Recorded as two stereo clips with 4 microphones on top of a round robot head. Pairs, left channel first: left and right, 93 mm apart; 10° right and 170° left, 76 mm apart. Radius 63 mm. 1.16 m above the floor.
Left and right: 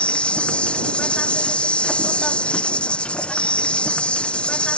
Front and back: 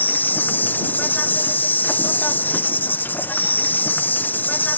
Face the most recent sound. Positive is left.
turn(degrees=20)